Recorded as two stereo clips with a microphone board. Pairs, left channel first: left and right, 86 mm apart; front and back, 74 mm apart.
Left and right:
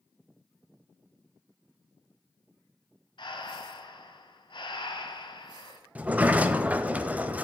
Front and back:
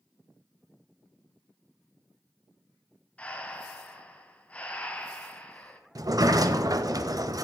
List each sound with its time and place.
3.2 s breathing: 75° left, 1.2 m
6.0 s a sliding door: 160° right, 0.6 m